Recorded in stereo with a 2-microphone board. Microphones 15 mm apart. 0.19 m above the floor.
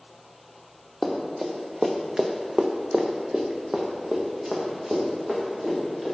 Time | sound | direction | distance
1.0 | running footsteps | 10° right (ahead or behind) | 1.3 m